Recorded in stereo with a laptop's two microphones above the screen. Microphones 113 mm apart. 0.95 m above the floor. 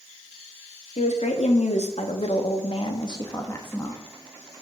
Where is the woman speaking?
80° left, 1.7 m; by 4.0 s 10° left (ahead or behind), 1.1 m.